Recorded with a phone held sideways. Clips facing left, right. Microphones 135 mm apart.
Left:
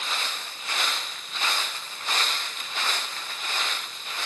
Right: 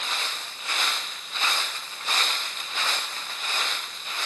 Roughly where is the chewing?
I don't hear chewing.